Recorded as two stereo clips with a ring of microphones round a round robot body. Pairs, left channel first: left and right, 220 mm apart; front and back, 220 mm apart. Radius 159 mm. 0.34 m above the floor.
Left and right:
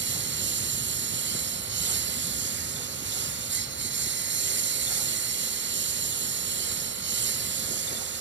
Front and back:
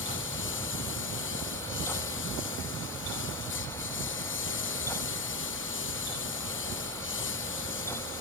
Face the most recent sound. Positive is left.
turn(degrees=-55)